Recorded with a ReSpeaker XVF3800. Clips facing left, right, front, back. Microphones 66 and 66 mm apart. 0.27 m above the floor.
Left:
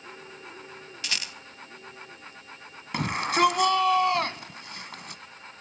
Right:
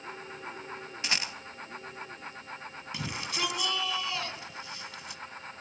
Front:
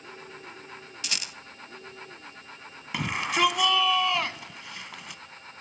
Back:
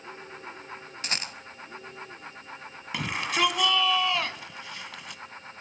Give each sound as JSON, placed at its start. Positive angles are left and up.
{"t": 1.0, "sound": "a rattle", "azimuth_deg": -145, "distance_m": 1.0}
{"t": 2.9, "sound": "a shout", "azimuth_deg": 90, "distance_m": 1.8}